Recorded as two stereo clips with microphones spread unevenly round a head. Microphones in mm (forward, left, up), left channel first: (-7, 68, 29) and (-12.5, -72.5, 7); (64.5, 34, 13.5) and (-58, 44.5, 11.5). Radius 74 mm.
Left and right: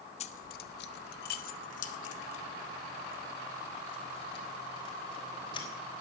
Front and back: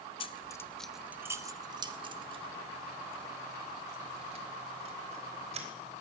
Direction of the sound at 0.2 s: 40° left.